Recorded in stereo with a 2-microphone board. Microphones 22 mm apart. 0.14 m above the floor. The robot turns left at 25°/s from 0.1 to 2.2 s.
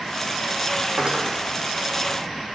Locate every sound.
1.0 s cutlery clinking: 35° right (ahead or behind), 4 m; by 1.2 s 25° right (ahead or behind), 4 m